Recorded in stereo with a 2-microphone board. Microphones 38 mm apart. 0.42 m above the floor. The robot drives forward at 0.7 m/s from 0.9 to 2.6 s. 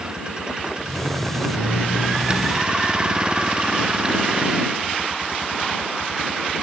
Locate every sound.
0.0 s a vehicle: 25° right (ahead or behind); by 6.6 s 20° right (ahead or behind)